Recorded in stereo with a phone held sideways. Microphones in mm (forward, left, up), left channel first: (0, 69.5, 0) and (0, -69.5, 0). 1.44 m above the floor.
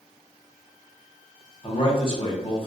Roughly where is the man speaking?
Left.